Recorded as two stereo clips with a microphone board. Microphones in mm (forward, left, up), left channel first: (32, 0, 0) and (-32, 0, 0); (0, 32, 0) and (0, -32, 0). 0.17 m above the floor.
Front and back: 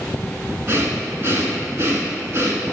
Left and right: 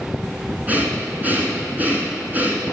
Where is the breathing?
145° right, 1.7 m.